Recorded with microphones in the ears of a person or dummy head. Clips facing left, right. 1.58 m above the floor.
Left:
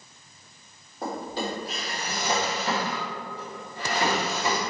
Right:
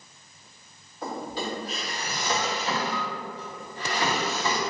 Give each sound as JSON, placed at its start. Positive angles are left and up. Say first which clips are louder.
{"t": 1.0, "sound": "a drawer", "louder": "left 1 dB", "side_deg": 40, "distance_m": 2.0}